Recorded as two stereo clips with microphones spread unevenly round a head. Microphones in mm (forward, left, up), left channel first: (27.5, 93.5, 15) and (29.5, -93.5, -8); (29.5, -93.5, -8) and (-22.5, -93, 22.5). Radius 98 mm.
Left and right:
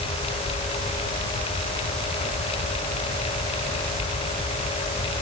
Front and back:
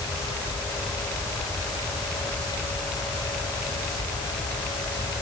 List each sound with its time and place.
Only background noise.